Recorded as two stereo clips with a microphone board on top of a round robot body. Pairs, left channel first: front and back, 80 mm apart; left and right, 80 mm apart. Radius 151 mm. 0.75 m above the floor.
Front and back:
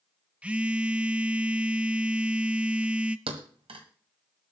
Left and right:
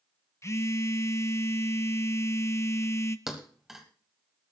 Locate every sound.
0.4 s a phone buzzing: 115° left, 1.0 m
3.3 s a thud: 175° right, 1.0 m